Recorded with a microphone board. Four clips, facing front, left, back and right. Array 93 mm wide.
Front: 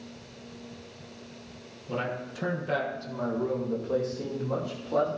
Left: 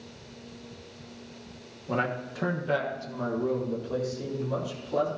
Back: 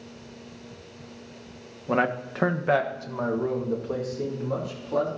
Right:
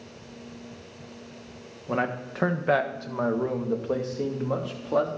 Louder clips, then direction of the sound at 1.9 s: Right 2 dB, back 8 dB; 170° right.